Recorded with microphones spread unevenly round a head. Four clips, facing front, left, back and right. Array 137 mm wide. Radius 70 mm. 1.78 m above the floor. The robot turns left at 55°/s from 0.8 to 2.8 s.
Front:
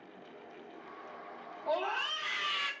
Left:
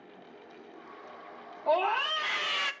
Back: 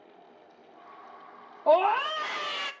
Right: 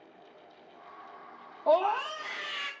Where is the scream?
165° right, 0.7 m; by 2.7 s 135° left, 0.7 m.